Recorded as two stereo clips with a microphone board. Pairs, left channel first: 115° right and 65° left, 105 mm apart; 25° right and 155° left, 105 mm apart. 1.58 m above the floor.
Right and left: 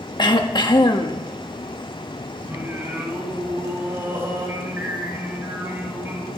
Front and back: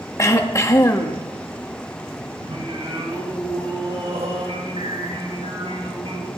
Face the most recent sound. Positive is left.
turn(degrees=135)